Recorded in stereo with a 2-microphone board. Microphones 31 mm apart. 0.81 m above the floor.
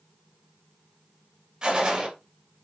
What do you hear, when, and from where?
1.6 s a gunshot: 30° right (ahead or behind), 3.5 m